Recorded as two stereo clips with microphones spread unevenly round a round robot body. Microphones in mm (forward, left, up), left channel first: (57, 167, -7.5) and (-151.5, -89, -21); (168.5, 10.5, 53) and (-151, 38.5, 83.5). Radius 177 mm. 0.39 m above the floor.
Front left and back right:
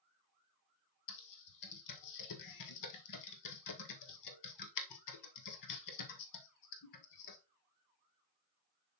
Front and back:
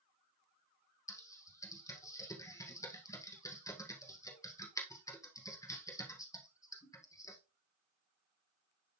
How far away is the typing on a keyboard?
About 1.6 m.